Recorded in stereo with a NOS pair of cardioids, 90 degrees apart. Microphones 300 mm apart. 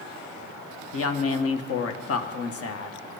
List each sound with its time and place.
0.9 s a woman speaking: 50° left, 1.6 m